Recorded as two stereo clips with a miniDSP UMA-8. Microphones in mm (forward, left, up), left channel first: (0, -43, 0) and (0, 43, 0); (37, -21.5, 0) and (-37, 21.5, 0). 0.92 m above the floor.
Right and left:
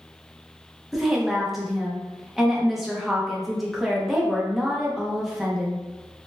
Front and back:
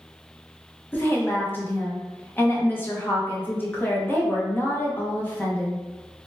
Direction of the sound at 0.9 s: 5° left.